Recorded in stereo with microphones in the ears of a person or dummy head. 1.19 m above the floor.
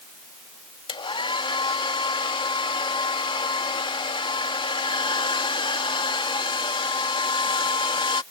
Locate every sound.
0.9 s a hair dryer: 20° left (ahead or behind)